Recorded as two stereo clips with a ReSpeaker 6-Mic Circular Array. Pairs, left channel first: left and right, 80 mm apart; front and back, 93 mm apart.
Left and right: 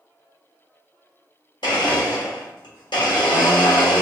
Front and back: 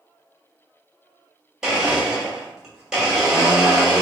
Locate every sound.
1.6 s a blender: 95° left, 1.2 m